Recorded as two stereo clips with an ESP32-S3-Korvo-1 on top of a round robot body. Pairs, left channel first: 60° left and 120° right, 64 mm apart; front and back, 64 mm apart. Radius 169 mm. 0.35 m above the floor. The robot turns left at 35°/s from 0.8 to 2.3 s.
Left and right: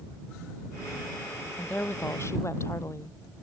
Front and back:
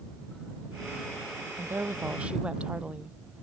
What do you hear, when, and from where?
1.6 s a woman speaking: 135° left; by 3.2 s 105° left